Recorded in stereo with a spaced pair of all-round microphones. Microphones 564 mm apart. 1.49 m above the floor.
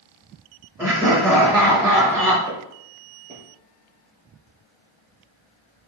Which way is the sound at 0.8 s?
5° right (ahead or behind).